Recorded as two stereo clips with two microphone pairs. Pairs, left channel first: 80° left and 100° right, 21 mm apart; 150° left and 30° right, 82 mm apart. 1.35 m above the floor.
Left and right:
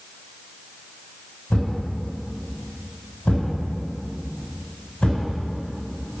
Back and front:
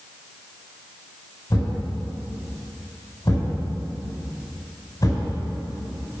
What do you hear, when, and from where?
1.5 s a thud: 105° left, 4.5 m